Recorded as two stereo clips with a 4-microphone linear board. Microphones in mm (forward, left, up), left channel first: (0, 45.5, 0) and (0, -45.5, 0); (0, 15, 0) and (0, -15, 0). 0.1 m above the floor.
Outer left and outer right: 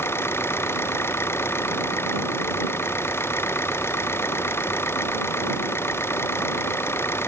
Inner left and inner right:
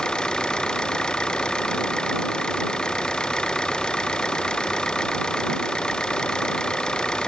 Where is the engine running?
25° left (ahead or behind).